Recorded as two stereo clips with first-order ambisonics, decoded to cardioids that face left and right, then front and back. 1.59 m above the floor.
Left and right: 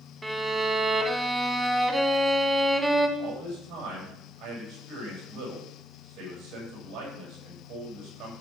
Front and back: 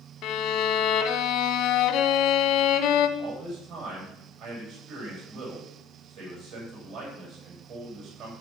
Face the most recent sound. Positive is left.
turn(degrees=-135)